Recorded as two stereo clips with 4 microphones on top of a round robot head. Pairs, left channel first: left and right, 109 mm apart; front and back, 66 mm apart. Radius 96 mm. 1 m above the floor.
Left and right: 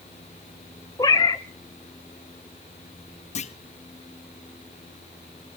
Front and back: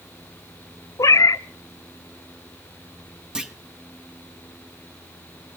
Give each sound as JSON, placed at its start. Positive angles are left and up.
{"t": 1.0, "sound": "a cat meowing", "azimuth_deg": 25, "distance_m": 0.5}
{"t": 3.4, "sound": "a clunk", "azimuth_deg": 100, "distance_m": 1.1}